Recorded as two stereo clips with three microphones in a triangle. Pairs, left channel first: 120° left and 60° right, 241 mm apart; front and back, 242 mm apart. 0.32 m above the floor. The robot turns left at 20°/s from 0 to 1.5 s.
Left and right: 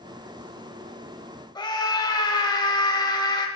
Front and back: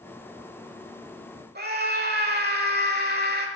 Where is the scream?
Straight behind, 1.2 m.